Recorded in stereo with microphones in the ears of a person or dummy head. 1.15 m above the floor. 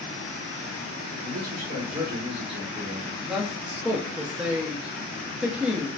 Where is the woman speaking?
10° right (ahead or behind), 0.7 m.